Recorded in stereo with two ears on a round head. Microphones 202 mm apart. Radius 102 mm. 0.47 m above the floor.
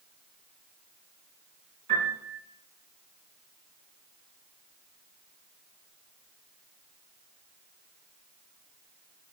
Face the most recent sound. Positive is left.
turn(degrees=-30)  # may be behind; listen again after turning